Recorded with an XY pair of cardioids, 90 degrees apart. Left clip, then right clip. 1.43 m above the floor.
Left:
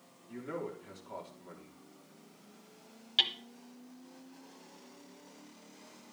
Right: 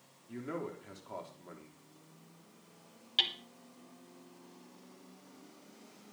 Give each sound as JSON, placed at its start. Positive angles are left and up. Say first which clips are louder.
{"t": 0.3, "sound": "a man speaking", "louder": "even", "azimuth_deg": -10, "distance_m": 3.5}
{"t": 3.2, "sound": "hammering", "louder": "left 2 dB", "azimuth_deg": 10, "distance_m": 1.2}